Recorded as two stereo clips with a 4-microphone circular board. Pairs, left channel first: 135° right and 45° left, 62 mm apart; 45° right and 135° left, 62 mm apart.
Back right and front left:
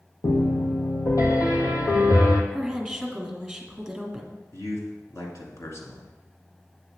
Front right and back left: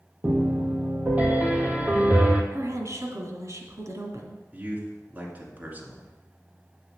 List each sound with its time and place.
0.2 s a piano: 160° right, 1.4 m
2.5 s a woman speaking: 135° left, 2 m
4.5 s a man speaking: 165° right, 2 m